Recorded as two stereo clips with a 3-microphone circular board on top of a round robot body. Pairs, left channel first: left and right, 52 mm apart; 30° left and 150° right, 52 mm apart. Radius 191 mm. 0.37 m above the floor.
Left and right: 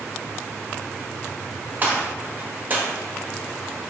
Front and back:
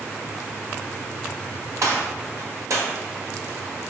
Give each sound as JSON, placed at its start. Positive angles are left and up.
{"t": 1.8, "sound": "a gunshot", "azimuth_deg": -145, "distance_m": 1.6}